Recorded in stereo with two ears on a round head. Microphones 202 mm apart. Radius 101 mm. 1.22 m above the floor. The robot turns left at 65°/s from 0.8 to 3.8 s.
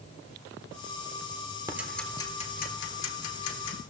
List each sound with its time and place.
1.7 s ticking: 15° right (ahead or behind), 1.4 m; by 3.8 s 50° left (ahead or behind), 1.4 m